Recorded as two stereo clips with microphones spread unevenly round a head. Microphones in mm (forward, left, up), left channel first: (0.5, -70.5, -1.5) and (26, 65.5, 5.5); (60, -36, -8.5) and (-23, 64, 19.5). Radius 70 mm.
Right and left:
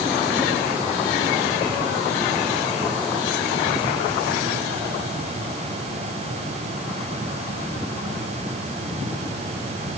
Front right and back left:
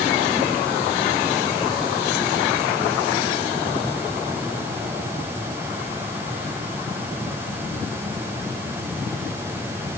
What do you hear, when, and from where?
Only background noise.